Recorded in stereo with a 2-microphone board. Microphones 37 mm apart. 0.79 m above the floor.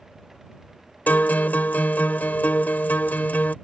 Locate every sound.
1.1 s a guitar: 55° left (ahead or behind)